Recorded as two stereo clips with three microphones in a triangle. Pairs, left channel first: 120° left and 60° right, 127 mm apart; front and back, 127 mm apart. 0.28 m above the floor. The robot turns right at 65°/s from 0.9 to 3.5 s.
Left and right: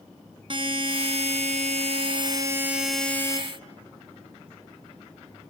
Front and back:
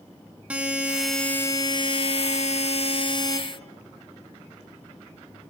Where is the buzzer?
100° right, 1.4 m; by 3.4 s 60° left, 1.4 m.